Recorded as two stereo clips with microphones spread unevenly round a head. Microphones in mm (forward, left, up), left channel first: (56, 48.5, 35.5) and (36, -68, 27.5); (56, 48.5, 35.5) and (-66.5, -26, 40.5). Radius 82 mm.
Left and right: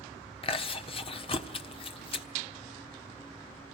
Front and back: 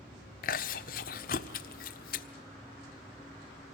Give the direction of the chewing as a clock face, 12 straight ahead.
10 o'clock.